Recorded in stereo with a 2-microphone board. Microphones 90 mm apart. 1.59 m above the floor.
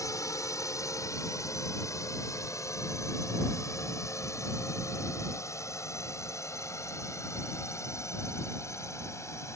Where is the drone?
35° left (ahead or behind); by 9.6 s 30° left (ahead or behind).